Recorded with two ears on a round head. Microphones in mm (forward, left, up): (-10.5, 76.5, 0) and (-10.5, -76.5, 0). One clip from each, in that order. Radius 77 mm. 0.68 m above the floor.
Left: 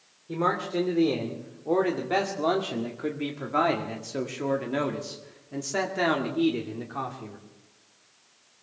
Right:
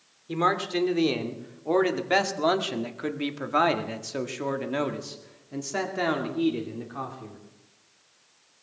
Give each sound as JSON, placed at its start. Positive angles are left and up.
{"t": 0.3, "sound": "a man speaking", "side_deg": -65, "distance_m": 2.5}